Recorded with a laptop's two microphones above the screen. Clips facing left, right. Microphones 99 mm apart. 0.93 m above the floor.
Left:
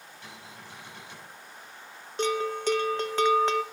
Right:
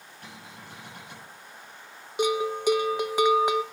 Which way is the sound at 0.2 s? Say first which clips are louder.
Right 2 dB; 45° right (ahead or behind).